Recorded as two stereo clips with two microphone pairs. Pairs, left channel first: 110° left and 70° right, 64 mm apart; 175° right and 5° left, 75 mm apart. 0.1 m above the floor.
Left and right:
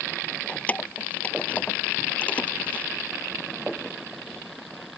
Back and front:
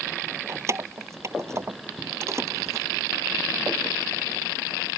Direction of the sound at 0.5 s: 50° left.